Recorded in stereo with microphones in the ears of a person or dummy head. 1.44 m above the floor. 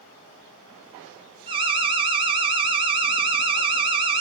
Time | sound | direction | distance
1.5 | an alarm | 25° right (ahead or behind) | 0.6 m